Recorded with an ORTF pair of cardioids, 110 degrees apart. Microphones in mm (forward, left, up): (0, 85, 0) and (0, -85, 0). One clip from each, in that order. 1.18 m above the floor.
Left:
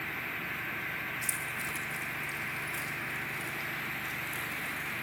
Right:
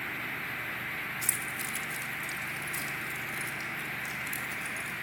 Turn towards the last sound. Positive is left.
turn(degrees=-50)